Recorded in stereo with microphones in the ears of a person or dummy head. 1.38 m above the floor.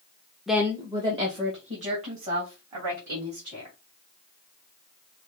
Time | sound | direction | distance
0.5 | a woman speaking | centre (ahead or behind) | 0.5 m